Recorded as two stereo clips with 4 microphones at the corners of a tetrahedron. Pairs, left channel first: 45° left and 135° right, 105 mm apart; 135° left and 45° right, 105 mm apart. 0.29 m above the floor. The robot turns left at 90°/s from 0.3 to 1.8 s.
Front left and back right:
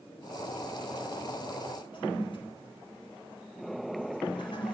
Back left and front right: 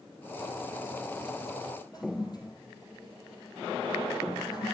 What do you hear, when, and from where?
1.9 s a toilet flushing: 85° left, 3.5 m